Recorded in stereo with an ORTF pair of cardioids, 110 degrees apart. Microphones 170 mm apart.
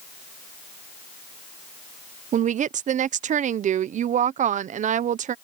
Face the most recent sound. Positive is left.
turn(degrees=-45)